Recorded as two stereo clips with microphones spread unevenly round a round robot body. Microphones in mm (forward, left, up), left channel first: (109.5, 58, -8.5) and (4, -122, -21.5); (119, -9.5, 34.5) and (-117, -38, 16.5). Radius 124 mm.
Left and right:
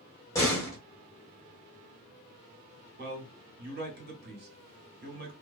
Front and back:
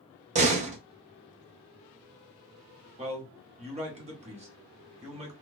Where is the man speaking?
125° right, 1.1 m.